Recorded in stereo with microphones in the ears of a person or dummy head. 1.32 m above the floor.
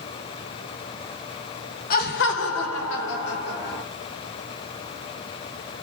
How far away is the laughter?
About 1.3 m.